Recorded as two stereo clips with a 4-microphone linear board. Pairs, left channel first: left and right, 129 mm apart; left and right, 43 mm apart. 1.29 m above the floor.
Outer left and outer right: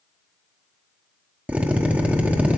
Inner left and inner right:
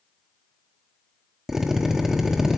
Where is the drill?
10° right (ahead or behind), 0.9 m.